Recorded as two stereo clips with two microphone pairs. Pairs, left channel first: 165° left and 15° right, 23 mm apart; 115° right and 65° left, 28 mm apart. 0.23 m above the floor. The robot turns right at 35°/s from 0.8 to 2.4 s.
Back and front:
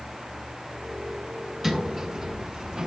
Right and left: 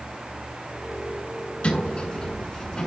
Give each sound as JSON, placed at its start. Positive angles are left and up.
{"t": 1.6, "sound": "a sliding door", "azimuth_deg": -80, "distance_m": 2.5}